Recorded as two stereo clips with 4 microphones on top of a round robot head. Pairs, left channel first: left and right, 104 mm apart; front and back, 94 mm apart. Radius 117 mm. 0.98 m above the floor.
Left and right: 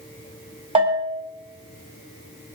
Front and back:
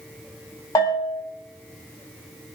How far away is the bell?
About 5.5 m.